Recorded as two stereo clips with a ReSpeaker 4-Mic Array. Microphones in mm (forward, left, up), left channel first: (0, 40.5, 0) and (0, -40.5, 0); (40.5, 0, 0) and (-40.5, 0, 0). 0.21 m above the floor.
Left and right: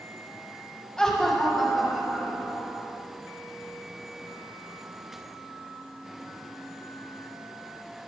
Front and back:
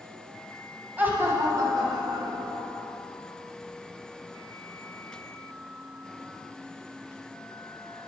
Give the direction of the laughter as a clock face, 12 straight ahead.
7 o'clock.